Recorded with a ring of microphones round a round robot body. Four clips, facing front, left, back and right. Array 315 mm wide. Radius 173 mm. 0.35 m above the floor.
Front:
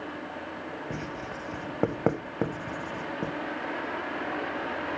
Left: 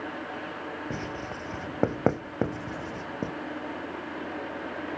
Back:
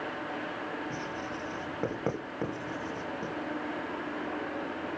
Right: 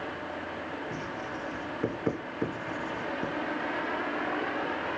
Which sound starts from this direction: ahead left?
Writing, at 0.9 s.